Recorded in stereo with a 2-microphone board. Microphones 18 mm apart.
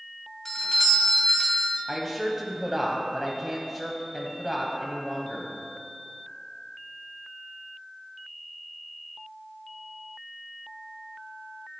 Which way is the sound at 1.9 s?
15° right (ahead or behind).